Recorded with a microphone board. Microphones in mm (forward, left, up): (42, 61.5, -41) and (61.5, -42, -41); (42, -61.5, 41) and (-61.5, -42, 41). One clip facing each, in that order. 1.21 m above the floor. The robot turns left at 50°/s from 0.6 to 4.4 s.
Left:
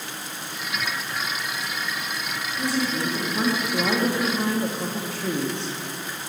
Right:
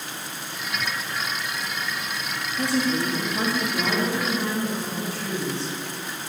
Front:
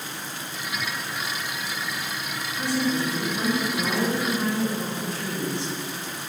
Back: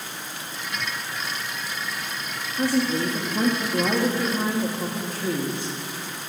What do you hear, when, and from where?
2.6 s a woman speaking: 145° right, 1.3 m; by 5.8 s 125° left, 1.3 m